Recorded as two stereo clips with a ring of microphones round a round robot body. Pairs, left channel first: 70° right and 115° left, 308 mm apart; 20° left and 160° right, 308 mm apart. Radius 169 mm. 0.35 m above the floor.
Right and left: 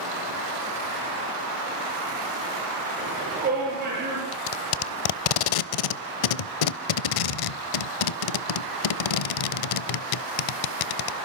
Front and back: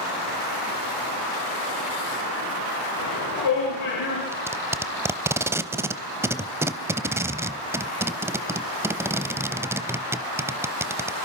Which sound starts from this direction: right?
Tape being pulled, at 4.3 s.